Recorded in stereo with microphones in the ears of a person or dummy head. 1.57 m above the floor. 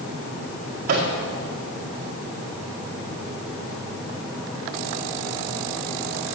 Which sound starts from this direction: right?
A microwave, at 0.9 s.